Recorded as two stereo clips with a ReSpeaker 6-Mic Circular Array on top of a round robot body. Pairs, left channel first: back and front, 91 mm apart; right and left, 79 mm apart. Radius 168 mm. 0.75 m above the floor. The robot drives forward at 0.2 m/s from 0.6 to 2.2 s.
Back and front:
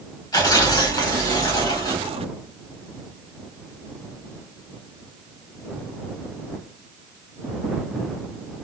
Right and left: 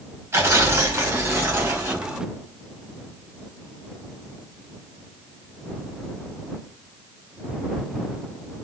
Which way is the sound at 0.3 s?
145° left.